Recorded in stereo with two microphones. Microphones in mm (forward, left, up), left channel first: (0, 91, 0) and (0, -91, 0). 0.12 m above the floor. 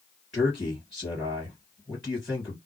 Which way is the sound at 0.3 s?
5° right (ahead or behind).